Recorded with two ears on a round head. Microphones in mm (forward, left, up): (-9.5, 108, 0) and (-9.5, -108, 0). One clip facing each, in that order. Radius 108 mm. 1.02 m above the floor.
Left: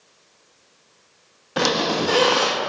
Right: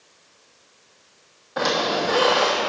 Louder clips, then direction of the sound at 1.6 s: Left 2 dB; 50° left (ahead or behind).